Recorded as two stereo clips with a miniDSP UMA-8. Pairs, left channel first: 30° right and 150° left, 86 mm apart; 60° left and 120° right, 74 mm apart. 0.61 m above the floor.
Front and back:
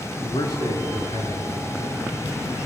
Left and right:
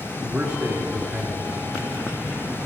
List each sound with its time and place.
0.2 s a man speaking: 50° right, 7.5 m